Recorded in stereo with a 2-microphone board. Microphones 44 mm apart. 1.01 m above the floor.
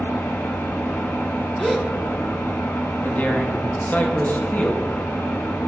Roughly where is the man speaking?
Left.